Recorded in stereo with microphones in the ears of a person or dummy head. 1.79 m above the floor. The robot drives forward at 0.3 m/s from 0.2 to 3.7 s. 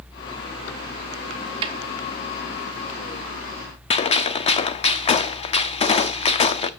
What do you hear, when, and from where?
1.6 s a snare drum: 25° right (ahead or behind), 0.7 m; by 1.8 s 30° right (ahead or behind), 0.7 m
3.9 s a gunshot: 30° left (ahead or behind), 0.5 m